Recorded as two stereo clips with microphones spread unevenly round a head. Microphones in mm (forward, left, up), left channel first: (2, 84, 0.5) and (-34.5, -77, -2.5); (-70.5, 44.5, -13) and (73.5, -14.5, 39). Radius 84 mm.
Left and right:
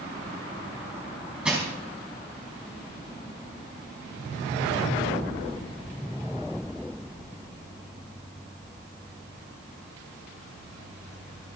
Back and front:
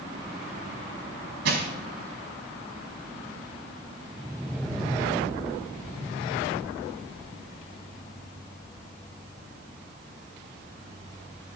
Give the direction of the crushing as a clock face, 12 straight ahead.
1 o'clock.